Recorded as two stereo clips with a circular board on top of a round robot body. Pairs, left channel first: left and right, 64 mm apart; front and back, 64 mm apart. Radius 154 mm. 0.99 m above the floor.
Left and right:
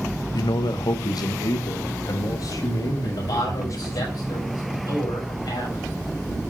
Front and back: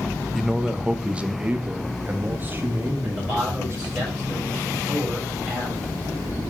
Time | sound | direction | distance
0.3 | a man speaking | 90° left | 0.8 m
3.0 | a man speaking | 105° left | 7 m